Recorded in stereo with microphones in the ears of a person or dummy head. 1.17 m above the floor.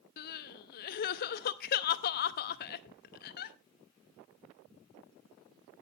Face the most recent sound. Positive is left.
turn(degrees=50)  # may be behind; listen again after turning